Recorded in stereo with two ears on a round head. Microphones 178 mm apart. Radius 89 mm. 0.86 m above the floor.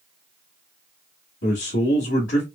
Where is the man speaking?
55° left (ahead or behind), 1.5 m.